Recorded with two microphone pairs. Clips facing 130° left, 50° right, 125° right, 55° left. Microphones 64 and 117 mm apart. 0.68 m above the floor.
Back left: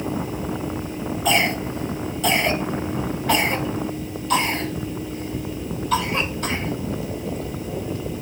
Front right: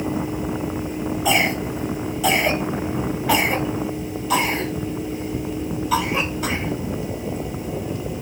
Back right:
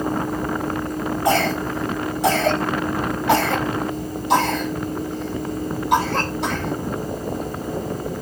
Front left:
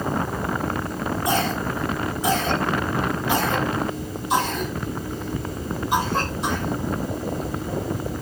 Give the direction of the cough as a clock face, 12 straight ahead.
4 o'clock.